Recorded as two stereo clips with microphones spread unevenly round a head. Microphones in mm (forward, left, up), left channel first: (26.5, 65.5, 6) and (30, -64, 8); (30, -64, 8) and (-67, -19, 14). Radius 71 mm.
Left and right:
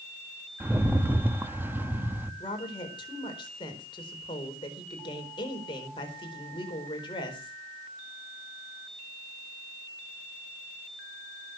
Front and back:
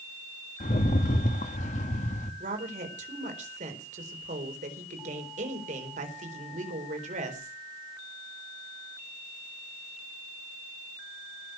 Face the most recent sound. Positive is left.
turn(degrees=155)